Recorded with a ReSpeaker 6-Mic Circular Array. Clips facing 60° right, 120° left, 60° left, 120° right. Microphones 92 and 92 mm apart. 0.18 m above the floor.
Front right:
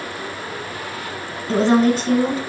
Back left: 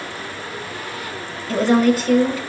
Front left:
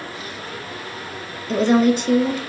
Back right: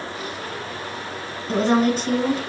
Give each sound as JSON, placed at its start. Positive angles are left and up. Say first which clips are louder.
{"t": 1.5, "sound": "a woman speaking", "louder": "even, front left 3 dB", "azimuth_deg": -110, "distance_m": 1.3}